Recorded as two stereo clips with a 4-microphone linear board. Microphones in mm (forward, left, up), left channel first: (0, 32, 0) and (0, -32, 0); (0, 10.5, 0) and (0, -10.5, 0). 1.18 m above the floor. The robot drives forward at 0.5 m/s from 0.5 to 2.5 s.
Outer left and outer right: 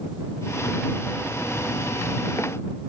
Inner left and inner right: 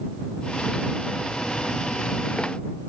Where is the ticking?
I don't hear ticking.